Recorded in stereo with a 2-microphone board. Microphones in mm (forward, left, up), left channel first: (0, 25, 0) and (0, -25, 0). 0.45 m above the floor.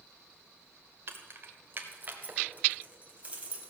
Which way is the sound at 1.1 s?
50° right (ahead or behind).